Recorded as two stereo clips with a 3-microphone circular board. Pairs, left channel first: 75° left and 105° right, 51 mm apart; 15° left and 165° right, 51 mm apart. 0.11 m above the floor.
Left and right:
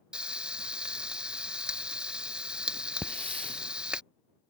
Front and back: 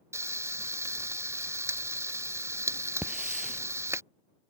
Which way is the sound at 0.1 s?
175° right.